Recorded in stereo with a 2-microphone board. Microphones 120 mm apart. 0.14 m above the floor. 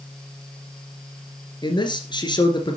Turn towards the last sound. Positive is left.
turn(degrees=40)  # may be behind; listen again after turning